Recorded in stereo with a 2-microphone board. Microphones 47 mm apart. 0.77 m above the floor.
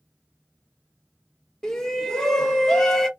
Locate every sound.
1.6 s a shout: 10° left (ahead or behind), 0.9 m